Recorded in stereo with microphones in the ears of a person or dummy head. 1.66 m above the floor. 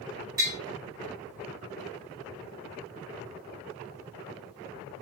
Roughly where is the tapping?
Centre.